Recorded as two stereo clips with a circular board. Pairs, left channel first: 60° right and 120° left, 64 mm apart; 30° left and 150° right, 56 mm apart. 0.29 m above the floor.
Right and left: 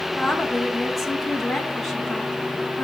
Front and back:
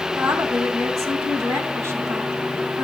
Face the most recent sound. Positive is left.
turn(degrees=-150)